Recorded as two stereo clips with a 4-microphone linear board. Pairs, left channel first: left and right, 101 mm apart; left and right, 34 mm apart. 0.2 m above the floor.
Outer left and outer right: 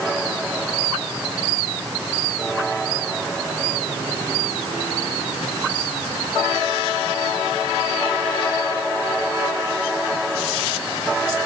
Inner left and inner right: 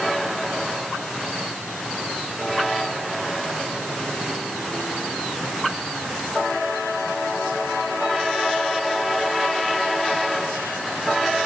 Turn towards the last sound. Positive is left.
No sound to turn to.